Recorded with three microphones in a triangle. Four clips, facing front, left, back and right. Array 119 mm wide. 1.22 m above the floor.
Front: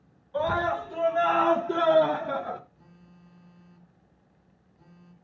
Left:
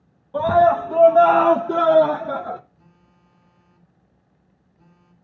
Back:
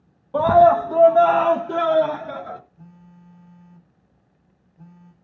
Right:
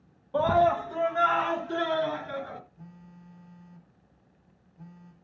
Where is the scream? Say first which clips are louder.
Left 7 dB, back 13 dB; straight behind, 0.7 m; by 2.6 s 75° left, 1.4 m.